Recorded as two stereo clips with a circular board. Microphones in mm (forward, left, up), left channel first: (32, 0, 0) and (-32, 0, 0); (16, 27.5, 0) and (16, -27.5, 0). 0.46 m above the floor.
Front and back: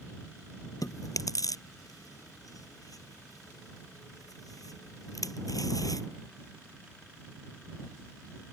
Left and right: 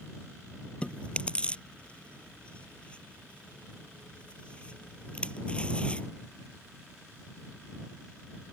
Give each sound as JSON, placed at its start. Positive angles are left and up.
{"t": 0.8, "sound": "chewing", "azimuth_deg": 20}